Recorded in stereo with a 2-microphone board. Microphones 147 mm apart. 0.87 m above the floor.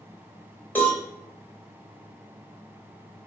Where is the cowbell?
10° left (ahead or behind), 1.5 m.